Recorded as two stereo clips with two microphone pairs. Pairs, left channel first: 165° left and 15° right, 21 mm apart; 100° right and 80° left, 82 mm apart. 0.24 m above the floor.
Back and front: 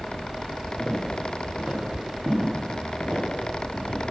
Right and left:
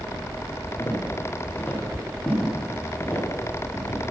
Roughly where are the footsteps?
Ahead right.